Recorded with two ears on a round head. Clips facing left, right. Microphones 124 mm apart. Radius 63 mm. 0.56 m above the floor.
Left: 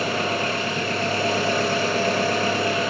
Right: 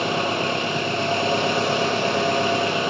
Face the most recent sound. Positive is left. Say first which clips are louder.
# right 1 dB
turn(degrees=-25)  # may be behind; listen again after turning